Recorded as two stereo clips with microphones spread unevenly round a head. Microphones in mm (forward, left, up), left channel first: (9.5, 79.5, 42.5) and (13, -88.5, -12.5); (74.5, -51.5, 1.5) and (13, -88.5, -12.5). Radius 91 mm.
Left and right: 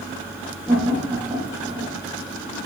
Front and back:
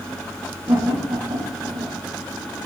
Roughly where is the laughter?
Behind.